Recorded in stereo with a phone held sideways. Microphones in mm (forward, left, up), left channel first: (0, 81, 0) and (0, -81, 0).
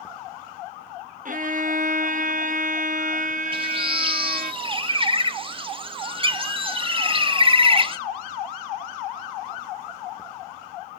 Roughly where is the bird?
Right.